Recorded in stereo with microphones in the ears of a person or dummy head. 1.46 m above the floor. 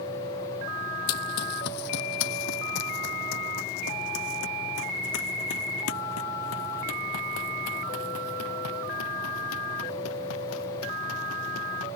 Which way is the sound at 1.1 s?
50° left (ahead or behind).